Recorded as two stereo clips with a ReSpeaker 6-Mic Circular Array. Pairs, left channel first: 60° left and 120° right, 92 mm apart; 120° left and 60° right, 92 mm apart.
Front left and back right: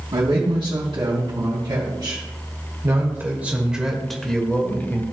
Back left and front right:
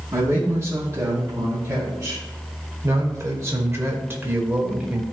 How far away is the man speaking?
About 2.5 m.